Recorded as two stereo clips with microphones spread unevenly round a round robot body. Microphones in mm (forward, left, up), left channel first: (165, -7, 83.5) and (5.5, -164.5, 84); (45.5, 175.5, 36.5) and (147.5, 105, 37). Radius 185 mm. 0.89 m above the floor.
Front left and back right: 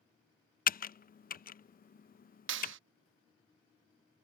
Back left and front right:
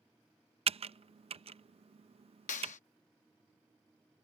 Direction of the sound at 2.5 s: Straight behind.